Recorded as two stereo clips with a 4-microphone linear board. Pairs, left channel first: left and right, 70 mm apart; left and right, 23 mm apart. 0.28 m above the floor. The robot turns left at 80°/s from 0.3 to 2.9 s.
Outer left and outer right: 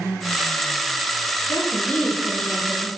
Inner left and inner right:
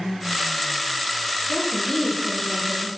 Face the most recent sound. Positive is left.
turn(degrees=-55)